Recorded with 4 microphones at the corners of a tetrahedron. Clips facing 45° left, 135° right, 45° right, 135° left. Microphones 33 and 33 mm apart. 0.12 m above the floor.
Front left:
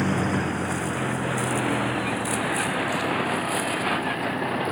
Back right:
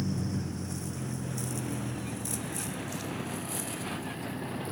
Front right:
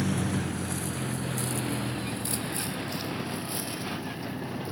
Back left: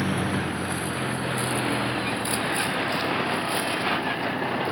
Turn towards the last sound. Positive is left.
turn(degrees=95)